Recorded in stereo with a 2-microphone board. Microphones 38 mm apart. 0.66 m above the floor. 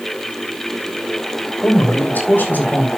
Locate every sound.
1.6 s a man speaking: 60° left (ahead or behind), 3.5 m